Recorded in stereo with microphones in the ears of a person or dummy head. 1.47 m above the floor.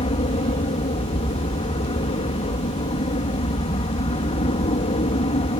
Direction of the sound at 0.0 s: 30° left (ahead or behind).